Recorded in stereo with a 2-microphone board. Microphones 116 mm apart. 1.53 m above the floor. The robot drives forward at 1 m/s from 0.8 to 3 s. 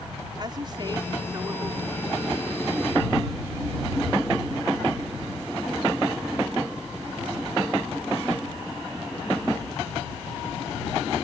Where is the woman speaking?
40° right (ahead or behind); by 2.0 s 30° right (ahead or behind).